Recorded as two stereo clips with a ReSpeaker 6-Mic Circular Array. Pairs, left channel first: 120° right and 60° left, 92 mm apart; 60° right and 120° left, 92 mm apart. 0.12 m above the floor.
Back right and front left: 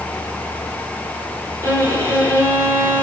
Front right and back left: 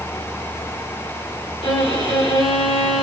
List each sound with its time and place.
1.6 s a violin: 60° right, 2.5 m